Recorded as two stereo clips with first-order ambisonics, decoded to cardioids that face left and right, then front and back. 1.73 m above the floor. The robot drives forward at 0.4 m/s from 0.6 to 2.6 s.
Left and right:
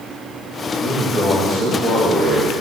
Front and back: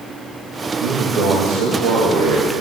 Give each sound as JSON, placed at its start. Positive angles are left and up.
{"t": 0.8, "sound": "a man speaking", "azimuth_deg": 170, "distance_m": 1.8}